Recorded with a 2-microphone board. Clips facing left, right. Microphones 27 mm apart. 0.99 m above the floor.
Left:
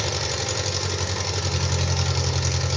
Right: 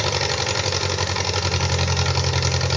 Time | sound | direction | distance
0.0 | an engine running | 40° right (ahead or behind) | 0.8 m